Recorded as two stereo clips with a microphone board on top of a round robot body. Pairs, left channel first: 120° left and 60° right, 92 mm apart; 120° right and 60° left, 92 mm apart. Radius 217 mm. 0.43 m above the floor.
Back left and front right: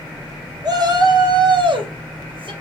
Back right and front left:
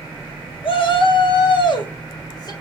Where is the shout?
100° right, 2.5 m; by 2.5 s 75° right, 3 m.